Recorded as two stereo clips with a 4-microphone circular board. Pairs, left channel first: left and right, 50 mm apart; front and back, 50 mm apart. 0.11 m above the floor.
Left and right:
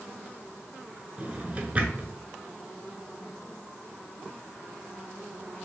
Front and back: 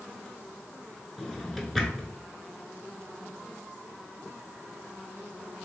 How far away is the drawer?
About 0.7 m.